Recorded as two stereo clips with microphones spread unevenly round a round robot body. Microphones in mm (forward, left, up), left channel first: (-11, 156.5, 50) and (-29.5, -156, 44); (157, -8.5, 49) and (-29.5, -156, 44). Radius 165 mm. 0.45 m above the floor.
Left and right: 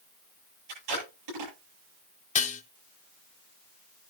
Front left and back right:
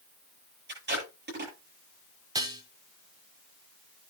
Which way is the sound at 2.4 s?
150° left.